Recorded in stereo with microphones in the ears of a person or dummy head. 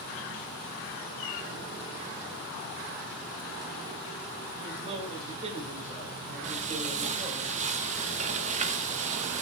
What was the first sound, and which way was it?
A man speaking, 30° right (ahead or behind).